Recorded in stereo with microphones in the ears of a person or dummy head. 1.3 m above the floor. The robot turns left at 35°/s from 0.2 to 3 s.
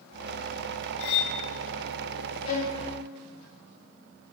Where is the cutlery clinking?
60° left (ahead or behind), 0.7 m; by 1.4 s 50° left (ahead or behind), 0.7 m.